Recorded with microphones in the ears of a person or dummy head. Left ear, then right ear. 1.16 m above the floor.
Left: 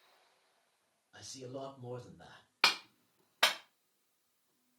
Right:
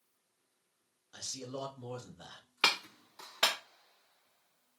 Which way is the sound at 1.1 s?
35° right (ahead or behind).